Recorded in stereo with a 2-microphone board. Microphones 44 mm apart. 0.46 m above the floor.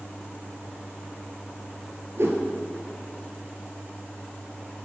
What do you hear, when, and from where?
2.2 s a whoosh: 75° right (ahead or behind), 1.3 m